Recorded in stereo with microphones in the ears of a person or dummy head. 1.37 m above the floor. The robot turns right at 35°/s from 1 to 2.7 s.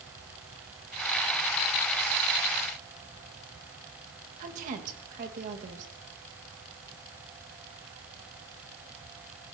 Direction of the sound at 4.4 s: 50° right (ahead or behind).